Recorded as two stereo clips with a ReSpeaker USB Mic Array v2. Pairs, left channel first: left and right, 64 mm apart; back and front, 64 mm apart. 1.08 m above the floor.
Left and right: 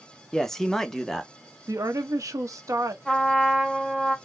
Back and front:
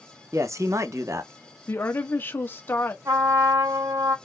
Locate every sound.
0.3 s a man speaking: 10° left, 0.6 m
1.7 s a woman speaking: 125° right, 0.9 m
3.0 s a trumpet: 5° left, 1.9 m